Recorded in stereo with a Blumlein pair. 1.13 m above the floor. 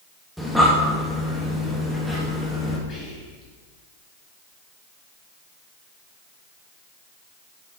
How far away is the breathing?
About 1.2 m.